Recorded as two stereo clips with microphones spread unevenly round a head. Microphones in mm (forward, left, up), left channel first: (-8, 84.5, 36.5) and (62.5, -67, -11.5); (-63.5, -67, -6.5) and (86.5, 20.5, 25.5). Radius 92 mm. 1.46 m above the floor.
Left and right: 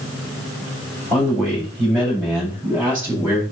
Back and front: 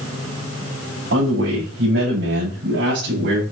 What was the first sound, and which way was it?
A man speaking, 30° left.